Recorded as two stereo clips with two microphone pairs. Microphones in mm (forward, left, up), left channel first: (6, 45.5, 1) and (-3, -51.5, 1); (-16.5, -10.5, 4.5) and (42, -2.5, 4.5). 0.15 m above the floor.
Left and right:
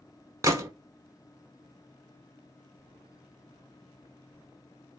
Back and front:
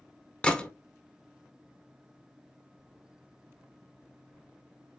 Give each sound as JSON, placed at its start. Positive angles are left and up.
{"t": 0.4, "sound": "a gunshot", "azimuth_deg": -115, "distance_m": 0.8}